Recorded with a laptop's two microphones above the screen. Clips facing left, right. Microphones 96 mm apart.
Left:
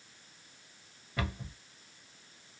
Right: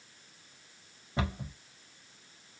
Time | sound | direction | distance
1.2 | a cupboard door | 25° right (ahead or behind) | 1.1 m